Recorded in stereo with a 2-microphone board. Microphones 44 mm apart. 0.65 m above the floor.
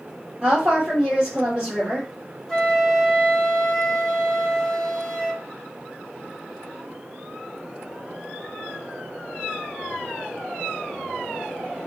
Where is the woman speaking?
25° right (ahead or behind), 1.9 m.